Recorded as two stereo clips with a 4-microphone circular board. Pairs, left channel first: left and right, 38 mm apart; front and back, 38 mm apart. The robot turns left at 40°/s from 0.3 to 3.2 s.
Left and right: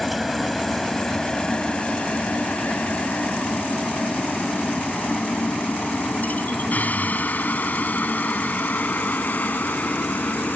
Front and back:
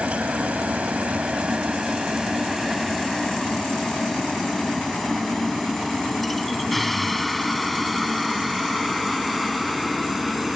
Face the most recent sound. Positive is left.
turn(degrees=90)